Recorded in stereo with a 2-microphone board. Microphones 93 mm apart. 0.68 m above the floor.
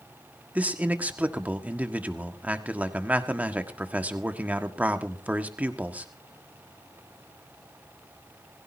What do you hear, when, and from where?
0.6 s a man speaking: 15° right (ahead or behind), 1.5 m